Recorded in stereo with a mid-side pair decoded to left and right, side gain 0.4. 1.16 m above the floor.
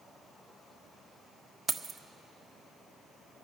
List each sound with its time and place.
1.7 s keys jangling: 25° right, 0.6 m